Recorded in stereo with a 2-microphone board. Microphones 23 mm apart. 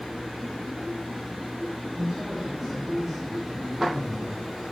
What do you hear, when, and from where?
1.9 s a man speaking: 20° right (ahead or behind), 5.5 m